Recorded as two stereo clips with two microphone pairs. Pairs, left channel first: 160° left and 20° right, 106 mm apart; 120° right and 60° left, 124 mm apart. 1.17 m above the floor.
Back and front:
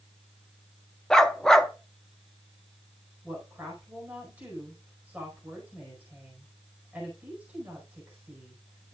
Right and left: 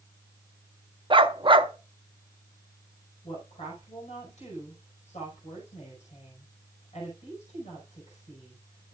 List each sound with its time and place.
1.1 s a dog barking: 75° left, 0.7 m
3.2 s a woman speaking: 95° right, 5 m